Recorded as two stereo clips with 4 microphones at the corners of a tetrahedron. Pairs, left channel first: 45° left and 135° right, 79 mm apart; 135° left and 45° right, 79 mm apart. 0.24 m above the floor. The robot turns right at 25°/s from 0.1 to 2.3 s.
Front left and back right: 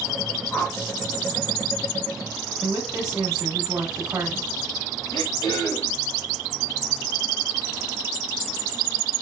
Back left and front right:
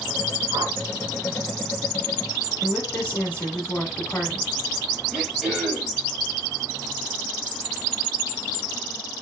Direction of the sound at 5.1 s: 35° left.